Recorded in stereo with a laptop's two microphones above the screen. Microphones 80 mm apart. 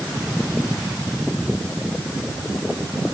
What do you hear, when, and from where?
Only background noise.